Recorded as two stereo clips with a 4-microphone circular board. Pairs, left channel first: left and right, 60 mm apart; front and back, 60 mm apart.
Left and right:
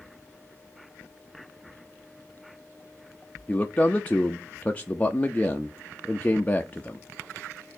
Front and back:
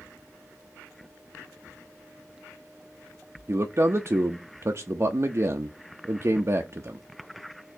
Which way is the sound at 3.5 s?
155° left.